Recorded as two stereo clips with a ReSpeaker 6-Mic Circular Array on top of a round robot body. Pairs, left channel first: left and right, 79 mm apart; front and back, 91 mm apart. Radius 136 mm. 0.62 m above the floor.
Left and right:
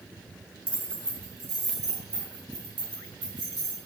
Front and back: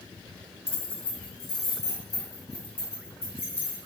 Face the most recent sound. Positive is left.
turn(degrees=-70)